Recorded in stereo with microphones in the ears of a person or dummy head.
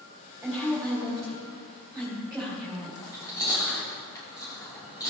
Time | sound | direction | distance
0.4 | a woman speaking | 5° right (ahead or behind) | 2.5 m
3.0 | chewing | 20° left (ahead or behind) | 2.5 m